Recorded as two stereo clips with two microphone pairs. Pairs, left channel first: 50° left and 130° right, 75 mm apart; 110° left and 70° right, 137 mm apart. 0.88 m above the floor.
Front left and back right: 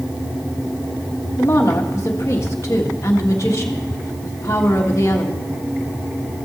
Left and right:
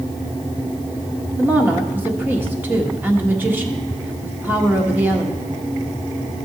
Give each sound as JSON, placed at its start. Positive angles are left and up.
{"t": 1.4, "sound": "a woman speaking", "azimuth_deg": 10, "distance_m": 1.3}